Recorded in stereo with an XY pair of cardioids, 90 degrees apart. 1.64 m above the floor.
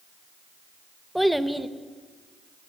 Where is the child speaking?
Straight ahead, 1.5 m.